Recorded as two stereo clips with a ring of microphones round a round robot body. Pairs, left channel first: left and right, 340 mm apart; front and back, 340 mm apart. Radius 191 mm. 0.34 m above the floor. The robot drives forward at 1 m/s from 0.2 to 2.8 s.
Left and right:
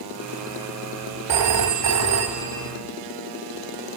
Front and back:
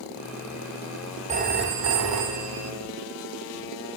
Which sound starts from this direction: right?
A phone ringing, at 1.3 s.